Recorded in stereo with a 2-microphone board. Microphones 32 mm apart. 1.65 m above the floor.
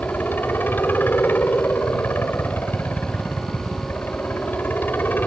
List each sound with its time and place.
0.0 s a helicopter: 80° left